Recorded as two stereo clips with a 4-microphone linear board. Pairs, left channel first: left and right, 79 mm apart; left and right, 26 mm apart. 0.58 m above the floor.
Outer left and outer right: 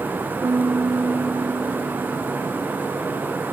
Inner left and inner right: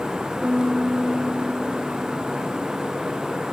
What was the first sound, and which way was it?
A piano, 70° right (ahead or behind).